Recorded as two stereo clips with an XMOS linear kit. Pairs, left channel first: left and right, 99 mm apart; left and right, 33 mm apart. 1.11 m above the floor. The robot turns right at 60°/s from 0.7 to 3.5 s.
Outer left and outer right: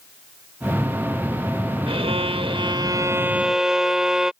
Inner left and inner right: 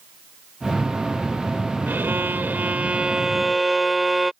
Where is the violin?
105° right; by 4.3 s 5° right.